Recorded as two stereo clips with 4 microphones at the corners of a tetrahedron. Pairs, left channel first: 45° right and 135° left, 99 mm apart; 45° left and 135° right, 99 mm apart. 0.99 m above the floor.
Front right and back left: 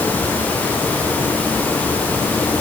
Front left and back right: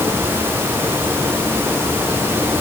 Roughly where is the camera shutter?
No camera shutter in this recording.